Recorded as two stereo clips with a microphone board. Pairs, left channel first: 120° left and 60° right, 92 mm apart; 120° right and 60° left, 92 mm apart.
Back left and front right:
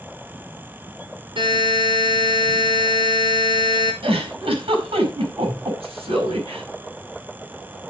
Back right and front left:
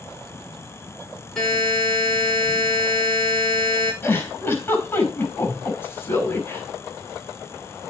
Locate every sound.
1.4 s a buzzer: 35° right, 5.5 m
4.0 s a giggle: 50° right, 5.5 m